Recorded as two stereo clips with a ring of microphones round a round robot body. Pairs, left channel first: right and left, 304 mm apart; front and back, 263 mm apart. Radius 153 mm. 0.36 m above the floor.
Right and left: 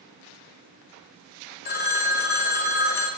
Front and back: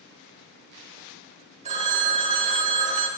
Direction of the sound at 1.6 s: 125° right.